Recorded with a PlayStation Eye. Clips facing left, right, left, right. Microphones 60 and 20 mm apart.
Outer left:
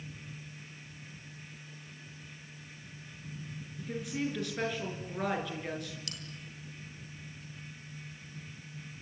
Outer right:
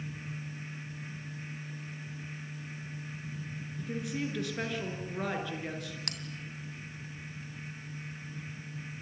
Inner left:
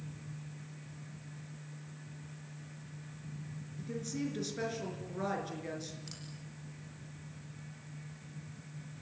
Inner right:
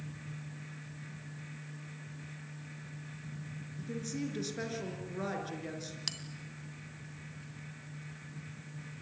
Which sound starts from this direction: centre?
A woman speaking, at 3.8 s.